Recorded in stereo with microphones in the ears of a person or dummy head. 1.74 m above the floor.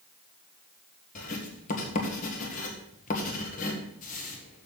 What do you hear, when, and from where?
1.1 s writing: 40° left (ahead or behind), 1.7 m